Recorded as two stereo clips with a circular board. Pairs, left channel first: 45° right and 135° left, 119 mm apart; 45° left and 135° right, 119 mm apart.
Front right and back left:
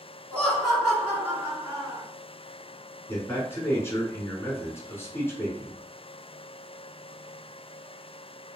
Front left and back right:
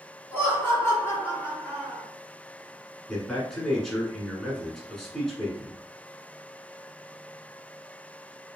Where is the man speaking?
40° right, 1.1 m.